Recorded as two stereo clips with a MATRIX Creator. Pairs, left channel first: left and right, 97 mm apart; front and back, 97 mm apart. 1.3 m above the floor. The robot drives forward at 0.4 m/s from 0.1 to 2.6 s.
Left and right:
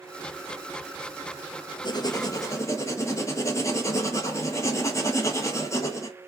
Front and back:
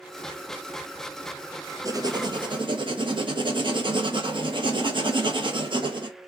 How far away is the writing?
About 0.5 m.